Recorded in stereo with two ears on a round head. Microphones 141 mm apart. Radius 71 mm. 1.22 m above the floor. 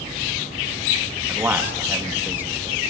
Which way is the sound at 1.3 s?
15° right (ahead or behind).